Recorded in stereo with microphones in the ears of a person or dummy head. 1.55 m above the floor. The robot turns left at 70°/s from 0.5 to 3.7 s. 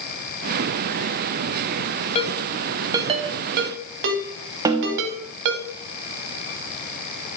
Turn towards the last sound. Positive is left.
turn(degrees=-20)  # may be behind; listen again after turning